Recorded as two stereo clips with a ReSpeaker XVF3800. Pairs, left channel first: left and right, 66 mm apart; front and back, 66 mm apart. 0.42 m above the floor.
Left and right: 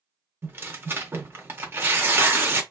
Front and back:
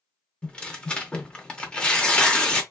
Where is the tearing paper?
65° right, 0.6 m.